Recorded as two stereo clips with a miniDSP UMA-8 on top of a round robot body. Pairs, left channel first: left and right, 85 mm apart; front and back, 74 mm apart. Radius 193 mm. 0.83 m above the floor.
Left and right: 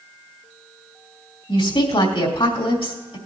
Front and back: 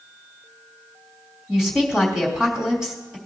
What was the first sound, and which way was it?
A woman speaking, 95° left.